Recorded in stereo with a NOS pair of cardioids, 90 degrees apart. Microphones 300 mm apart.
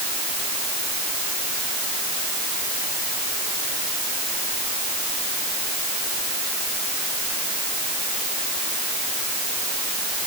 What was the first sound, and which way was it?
Only background noise.